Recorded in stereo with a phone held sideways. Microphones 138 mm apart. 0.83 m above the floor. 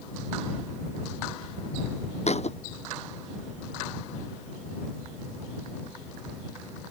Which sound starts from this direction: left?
A thud, at 2.3 s.